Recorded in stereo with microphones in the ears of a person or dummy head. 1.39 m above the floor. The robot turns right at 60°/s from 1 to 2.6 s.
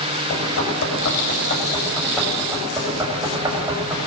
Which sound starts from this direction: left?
Knocking, at 0.3 s.